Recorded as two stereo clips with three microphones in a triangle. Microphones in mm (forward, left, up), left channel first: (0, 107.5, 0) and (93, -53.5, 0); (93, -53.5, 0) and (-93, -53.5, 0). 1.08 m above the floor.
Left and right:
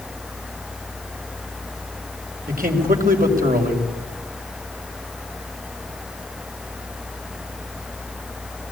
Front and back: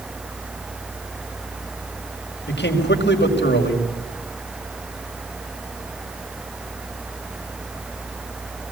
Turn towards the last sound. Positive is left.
turn(degrees=-20)